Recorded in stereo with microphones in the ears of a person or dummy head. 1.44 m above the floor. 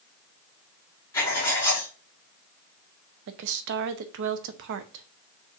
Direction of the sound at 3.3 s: 65° right (ahead or behind).